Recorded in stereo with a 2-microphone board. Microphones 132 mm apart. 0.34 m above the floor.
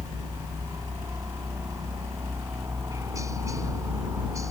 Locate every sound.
0.0 s a helicopter: 25° right (ahead or behind)